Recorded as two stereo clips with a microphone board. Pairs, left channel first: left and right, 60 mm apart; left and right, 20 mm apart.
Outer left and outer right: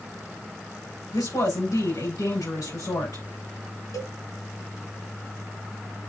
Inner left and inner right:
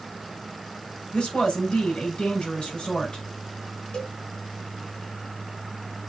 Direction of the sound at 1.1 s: 75° left (ahead or behind).